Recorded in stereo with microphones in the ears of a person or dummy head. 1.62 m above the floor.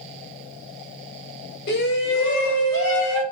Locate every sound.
1.7 s a shout: 60° left (ahead or behind), 1.5 m; by 3.2 s 70° left (ahead or behind), 2.5 m